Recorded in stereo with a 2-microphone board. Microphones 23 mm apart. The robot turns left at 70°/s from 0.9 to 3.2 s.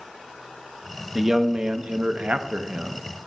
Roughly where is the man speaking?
Ahead.